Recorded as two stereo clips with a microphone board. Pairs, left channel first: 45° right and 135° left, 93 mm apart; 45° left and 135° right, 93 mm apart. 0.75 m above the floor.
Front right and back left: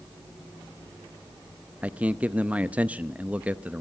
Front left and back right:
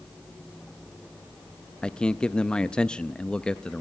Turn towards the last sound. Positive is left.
turn(degrees=100)